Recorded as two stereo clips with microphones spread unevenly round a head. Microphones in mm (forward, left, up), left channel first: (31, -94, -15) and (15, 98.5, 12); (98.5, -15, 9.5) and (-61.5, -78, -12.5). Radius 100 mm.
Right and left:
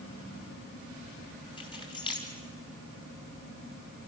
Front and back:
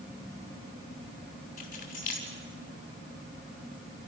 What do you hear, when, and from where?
1.6 s keys jangling: 20° right, 5.5 m